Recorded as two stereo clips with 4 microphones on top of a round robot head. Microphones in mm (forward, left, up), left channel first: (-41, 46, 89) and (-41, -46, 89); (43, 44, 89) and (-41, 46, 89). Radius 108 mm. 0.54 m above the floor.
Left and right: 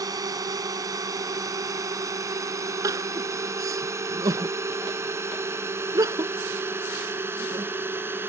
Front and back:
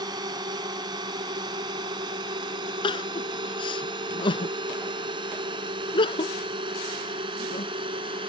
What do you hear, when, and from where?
0.0 s a drone: 140° right; by 8.3 s 155° right
2.8 s crying: 30° right